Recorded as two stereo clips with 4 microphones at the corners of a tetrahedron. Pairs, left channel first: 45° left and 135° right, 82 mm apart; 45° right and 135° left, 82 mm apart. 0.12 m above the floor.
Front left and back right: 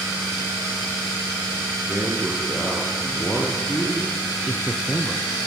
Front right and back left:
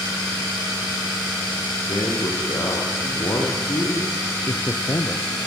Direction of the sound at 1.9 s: 20° right.